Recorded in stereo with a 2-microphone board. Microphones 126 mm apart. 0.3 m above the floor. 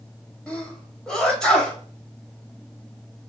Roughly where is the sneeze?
Centre.